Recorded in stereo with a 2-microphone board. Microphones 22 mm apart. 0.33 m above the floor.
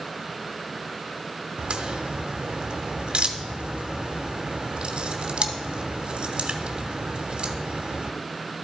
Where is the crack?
55° right (ahead or behind), 0.9 m.